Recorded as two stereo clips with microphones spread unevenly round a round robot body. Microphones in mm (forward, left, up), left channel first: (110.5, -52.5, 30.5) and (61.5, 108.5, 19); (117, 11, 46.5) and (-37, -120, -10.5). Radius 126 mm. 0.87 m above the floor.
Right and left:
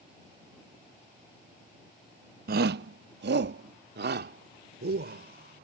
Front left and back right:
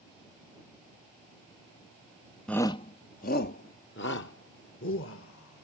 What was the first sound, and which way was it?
A shout, 135° left.